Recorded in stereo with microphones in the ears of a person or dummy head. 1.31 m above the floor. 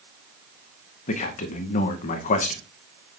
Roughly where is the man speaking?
Left.